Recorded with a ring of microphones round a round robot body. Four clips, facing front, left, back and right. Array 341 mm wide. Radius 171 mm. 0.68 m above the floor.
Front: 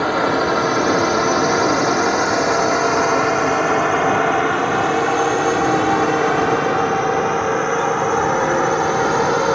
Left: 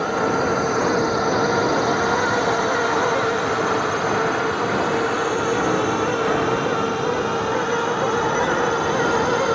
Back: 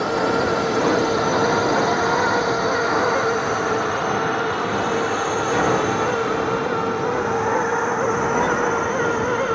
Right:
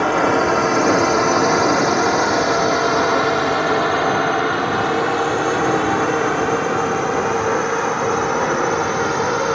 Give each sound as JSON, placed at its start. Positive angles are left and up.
{"t": 0.0, "sound": "a drone", "azimuth_deg": -60}